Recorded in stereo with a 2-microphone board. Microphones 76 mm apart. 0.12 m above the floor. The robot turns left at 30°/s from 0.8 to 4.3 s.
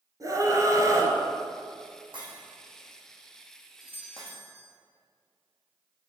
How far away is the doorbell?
About 2.5 m.